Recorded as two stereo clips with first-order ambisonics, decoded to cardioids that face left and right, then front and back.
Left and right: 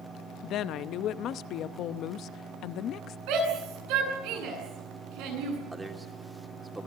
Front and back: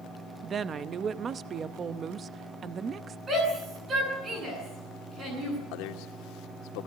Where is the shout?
115° right, 9.5 m.